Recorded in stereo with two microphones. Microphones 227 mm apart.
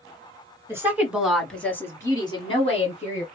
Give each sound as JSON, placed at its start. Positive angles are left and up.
{"t": 0.7, "sound": "a woman speaking", "side_deg": -10, "distance_m": 1.6}